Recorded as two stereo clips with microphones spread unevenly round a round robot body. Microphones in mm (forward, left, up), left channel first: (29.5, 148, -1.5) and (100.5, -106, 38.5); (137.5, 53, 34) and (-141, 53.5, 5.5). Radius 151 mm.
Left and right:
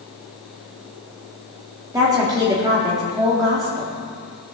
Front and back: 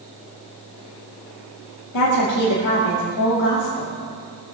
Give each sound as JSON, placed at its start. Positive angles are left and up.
{"t": 1.9, "sound": "a woman speaking", "azimuth_deg": 5, "distance_m": 2.5}